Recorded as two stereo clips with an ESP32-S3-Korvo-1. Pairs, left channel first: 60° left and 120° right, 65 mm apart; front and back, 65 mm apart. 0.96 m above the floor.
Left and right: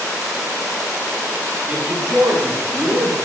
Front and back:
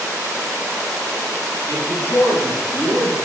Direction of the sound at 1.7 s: 45° right.